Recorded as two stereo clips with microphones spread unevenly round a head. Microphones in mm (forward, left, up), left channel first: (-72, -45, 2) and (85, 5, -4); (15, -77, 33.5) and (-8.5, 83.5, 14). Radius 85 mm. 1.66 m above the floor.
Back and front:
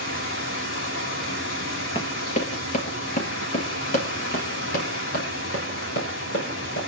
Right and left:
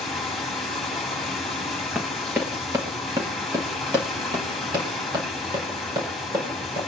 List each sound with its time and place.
0.0 s running water: 175° right, 4.5 m
1.9 s running footsteps: 175° right, 1.8 m; by 6.9 s 165° left, 5.5 m